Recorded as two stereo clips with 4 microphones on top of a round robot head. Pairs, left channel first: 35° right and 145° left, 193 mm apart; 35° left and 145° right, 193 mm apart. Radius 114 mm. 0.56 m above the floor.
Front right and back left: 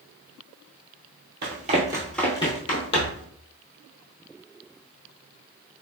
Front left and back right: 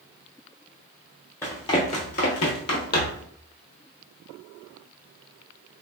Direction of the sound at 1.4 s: 110° left.